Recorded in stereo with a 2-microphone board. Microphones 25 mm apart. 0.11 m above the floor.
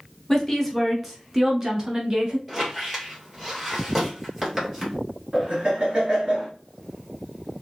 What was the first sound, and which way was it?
A woman speaking, 10° left (ahead or behind).